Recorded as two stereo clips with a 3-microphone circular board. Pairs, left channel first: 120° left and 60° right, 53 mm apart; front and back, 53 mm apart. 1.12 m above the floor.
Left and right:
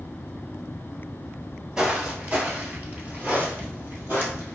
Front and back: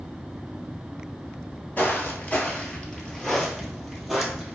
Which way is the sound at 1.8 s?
5° right.